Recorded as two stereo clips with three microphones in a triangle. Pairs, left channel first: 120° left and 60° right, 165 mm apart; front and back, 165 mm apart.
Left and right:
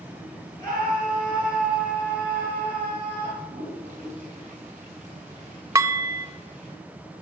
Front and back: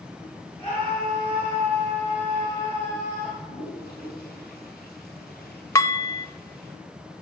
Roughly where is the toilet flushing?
Ahead.